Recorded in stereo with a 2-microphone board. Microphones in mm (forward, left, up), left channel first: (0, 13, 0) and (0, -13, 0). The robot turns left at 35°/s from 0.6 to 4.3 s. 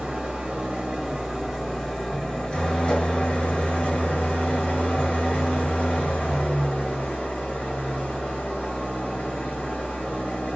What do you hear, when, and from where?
0.0 s an engine running: 150° right, 1.3 m; by 10.6 s 80° left, 1.3 m